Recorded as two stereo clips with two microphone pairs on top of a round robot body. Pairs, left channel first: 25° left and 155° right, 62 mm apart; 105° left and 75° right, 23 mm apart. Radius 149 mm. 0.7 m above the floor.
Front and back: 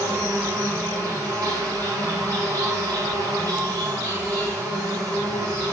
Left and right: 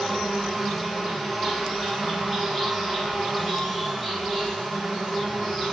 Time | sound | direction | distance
0.0 | an insect | 165° right | 2.0 m